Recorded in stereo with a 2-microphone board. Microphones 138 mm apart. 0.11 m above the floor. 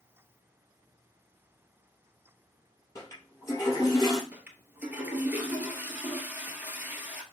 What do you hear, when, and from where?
3.0 s a toilet flushing: 25° left (ahead or behind), 2.5 m
4.3 s a toilet flushing: 15° right (ahead or behind), 1.0 m